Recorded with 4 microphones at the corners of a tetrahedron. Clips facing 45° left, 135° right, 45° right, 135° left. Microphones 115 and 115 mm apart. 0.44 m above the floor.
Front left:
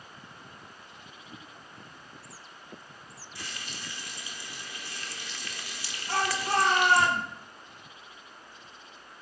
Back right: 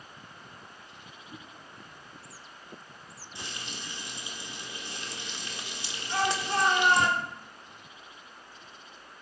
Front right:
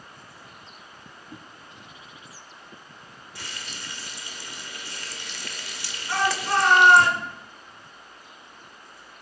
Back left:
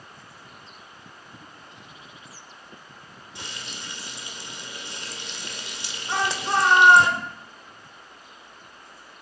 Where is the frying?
Straight behind, 1.5 m.